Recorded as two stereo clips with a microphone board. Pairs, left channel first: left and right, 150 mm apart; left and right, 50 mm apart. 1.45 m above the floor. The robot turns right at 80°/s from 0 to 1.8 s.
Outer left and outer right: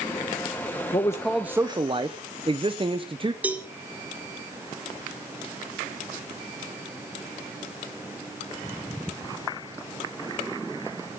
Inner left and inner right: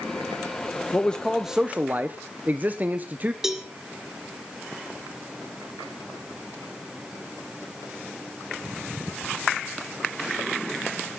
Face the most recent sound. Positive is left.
turn(degrees=-10)  # may be behind; listen again after turning